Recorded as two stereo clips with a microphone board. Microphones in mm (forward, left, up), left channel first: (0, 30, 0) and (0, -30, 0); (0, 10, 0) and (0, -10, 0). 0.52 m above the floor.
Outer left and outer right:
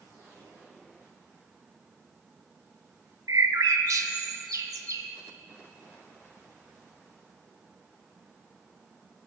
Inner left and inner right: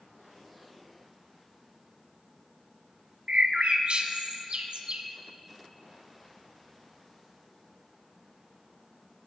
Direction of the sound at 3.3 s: 75° right (ahead or behind).